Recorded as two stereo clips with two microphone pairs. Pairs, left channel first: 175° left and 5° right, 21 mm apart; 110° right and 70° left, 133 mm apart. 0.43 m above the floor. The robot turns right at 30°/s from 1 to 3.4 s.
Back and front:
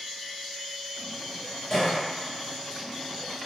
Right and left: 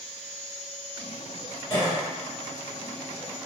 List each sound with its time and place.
1.7 s a cough: 145° right, 1.7 m; by 2.0 s 135° right, 1.7 m